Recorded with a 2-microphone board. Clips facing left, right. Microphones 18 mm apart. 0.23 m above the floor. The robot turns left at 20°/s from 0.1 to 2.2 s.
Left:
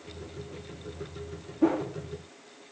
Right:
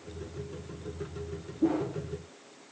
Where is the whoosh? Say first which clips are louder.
Left 2 dB; 55° left (ahead or behind), 8 m; by 1.9 s 50° left (ahead or behind), 8 m.